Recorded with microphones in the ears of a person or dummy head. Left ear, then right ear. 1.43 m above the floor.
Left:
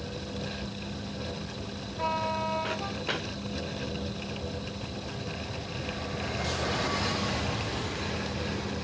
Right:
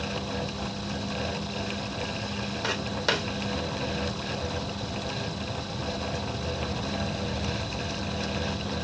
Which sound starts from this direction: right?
Footsteps, at 2.6 s.